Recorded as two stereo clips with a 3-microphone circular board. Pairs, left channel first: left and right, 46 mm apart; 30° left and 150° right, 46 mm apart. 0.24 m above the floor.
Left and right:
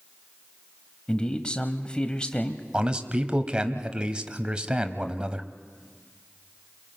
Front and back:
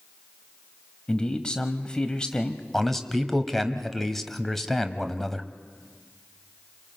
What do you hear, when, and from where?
1.1 s a man speaking: 65° left, 1.0 m
2.7 s a man speaking: 50° right, 1.1 m